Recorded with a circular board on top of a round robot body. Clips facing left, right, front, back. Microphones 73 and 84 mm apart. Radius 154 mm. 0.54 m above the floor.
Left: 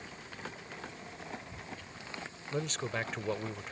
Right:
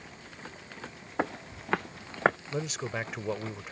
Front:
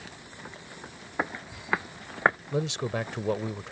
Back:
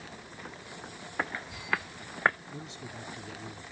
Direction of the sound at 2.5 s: 5° right.